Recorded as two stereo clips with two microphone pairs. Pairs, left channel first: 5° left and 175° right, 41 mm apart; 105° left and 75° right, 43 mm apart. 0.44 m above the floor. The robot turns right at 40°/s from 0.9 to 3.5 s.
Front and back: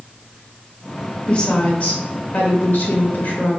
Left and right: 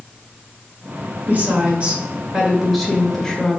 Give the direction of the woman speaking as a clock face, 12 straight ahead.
2 o'clock.